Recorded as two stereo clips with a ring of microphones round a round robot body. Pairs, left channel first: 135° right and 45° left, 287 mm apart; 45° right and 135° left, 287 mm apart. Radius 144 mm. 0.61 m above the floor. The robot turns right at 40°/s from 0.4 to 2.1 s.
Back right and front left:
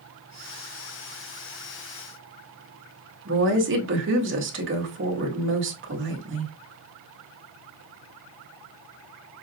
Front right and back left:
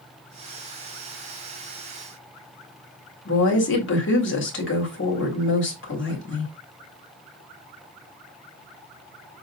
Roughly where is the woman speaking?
Ahead.